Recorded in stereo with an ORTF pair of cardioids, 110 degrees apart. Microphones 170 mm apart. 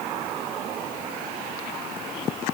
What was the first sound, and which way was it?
Only background noise.